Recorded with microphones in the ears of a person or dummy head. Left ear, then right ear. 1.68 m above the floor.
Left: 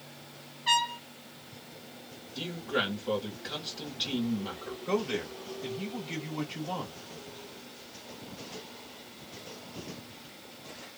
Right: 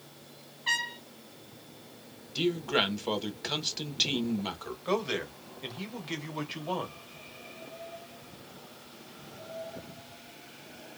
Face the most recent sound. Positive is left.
turn(degrees=-30)  # may be behind; listen again after turning